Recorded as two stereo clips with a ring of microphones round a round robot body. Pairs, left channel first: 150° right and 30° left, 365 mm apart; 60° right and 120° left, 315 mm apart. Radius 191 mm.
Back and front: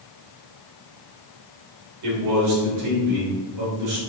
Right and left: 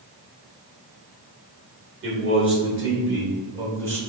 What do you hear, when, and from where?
2.0 s a man speaking: 70° left, 3 m